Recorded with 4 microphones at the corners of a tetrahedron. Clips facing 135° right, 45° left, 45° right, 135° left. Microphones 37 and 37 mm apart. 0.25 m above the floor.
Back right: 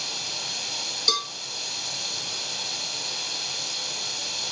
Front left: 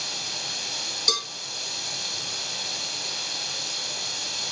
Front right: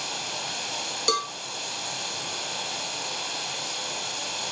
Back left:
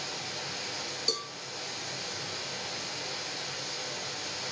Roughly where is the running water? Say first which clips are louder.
Even, front right 5 dB; ahead right.